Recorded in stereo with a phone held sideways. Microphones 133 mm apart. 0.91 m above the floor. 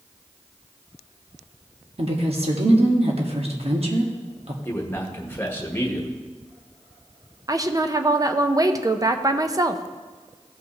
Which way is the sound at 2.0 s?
50° right (ahead or behind).